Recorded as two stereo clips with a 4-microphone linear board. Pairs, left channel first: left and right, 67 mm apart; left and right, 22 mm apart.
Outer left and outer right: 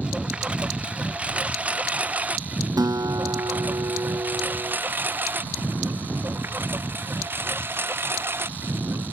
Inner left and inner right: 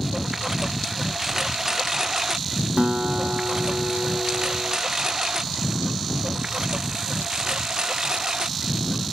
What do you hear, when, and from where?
0.0 s a lawn mower: 15° right (ahead or behind); by 9.1 s 40° right (ahead or behind)
2.8 s a guitar: 75° right (ahead or behind)